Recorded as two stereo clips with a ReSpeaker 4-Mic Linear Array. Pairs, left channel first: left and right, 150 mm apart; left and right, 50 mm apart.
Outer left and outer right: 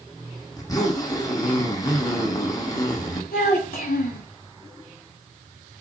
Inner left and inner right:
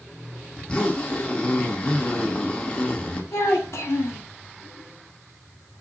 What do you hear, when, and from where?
0.6 s a zipper: 25° left (ahead or behind), 1.2 m
3.3 s a child speaking: 70° left (ahead or behind), 2 m